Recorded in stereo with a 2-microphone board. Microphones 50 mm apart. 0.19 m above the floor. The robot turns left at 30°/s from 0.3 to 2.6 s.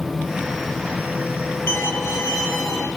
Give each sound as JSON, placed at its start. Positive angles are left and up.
{"t": 1.7, "sound": "a violin", "side_deg": 50, "distance_m": 2.5}